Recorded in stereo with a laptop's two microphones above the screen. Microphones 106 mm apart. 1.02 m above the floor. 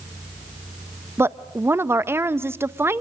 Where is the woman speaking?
20° right (ahead or behind), 0.7 m.